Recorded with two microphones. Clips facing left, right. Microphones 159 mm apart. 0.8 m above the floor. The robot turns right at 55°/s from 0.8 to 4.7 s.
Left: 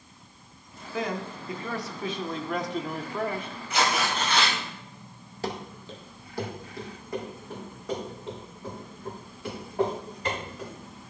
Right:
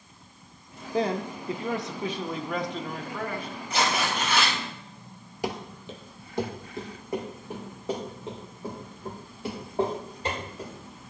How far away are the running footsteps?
About 1.1 m.